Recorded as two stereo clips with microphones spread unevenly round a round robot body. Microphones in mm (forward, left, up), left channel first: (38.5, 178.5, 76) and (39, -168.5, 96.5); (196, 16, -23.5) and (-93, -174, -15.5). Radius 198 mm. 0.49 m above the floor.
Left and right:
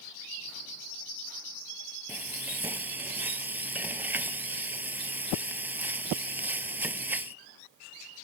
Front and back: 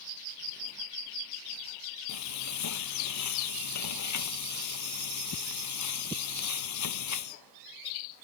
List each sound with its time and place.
2.1 s frying: 5° right